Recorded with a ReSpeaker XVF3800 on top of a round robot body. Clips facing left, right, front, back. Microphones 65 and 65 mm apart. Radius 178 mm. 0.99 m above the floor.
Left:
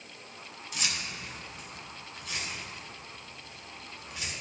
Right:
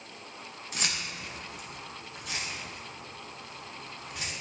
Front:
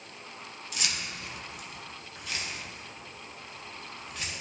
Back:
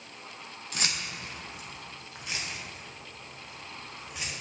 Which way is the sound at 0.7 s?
135° right.